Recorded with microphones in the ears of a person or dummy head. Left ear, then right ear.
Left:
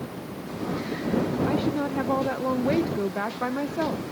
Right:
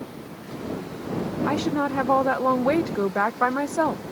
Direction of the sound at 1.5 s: 40° right (ahead or behind).